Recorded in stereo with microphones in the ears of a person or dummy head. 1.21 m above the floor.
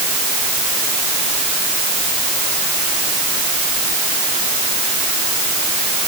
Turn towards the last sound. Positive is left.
No sound to turn to.